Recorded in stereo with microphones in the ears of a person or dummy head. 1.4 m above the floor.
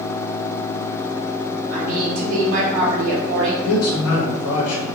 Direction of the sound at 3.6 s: 75° left (ahead or behind).